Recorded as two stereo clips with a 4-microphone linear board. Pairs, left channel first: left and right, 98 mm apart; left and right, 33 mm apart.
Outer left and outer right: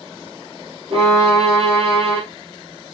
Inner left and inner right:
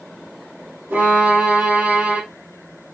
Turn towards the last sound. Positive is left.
turn(degrees=-80)